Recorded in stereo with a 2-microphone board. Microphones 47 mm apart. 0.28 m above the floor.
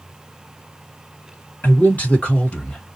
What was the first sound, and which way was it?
A man speaking, 40° left (ahead or behind).